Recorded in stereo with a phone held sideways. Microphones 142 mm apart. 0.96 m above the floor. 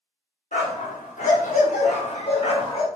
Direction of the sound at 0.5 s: 60° left (ahead or behind).